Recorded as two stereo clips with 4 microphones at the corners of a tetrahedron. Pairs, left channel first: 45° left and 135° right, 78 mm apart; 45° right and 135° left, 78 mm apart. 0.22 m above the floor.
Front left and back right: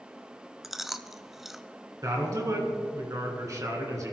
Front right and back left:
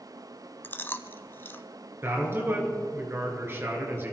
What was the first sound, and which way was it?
Chewing, 50° right.